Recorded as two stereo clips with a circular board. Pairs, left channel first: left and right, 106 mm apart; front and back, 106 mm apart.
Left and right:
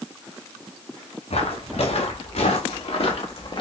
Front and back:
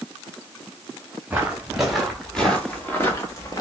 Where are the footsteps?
100° left, 1.8 m; by 3.6 s 50° left, 1.3 m.